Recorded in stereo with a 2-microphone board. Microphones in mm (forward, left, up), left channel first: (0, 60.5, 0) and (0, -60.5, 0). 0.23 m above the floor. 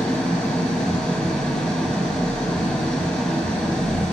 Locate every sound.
0.0 s an engine running: 5° left (ahead or behind), 1.2 m